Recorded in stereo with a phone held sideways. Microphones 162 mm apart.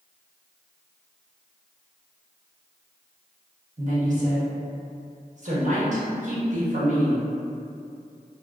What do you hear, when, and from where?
3.8 s a woman speaking: 50° right (ahead or behind), 0.8 m